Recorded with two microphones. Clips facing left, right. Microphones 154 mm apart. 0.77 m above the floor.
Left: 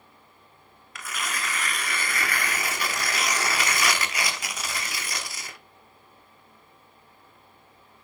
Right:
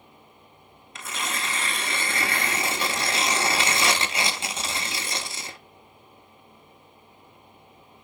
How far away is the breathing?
No breathing in this recording.